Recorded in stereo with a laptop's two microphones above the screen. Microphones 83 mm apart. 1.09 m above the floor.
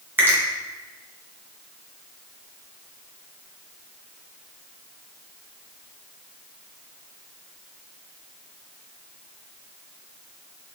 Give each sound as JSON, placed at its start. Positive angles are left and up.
{"t": 0.2, "sound": "a finger snap", "side_deg": -25, "distance_m": 0.9}